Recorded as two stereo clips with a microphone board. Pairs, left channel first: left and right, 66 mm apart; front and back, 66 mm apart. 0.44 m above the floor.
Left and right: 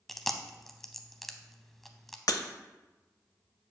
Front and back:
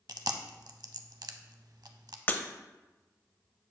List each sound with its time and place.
0.1 s chewing: 175° left, 0.6 m
2.3 s breaking glass: 60° left, 0.5 m